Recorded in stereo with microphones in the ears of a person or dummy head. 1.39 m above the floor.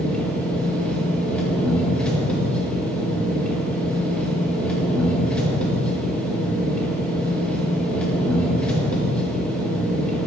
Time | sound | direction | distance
0.0 | an engine running | centre (ahead or behind) | 1.3 m